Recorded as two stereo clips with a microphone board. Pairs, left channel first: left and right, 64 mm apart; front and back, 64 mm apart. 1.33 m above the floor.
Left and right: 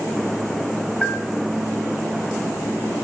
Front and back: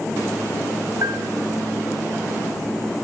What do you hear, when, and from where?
1.0 s a bell: 155° left, 7.5 m